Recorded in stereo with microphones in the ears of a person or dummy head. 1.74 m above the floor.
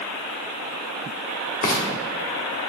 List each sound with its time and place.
1.6 s frying: 55° left (ahead or behind), 1.5 m